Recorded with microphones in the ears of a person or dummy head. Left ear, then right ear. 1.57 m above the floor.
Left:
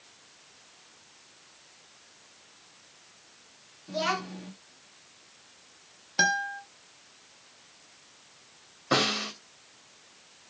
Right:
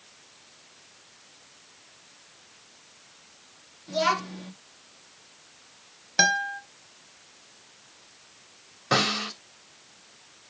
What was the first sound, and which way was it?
A child speaking, 5° right (ahead or behind).